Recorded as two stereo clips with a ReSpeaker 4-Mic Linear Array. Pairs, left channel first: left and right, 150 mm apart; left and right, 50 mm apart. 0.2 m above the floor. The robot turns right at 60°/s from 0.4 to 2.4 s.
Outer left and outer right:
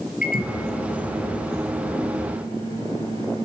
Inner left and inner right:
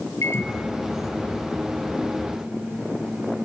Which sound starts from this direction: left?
A microwave, at 0.2 s.